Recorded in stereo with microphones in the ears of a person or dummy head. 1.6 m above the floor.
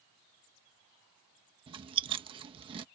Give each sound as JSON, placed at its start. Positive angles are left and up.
{"t": 1.7, "sound": "chewing", "side_deg": -30}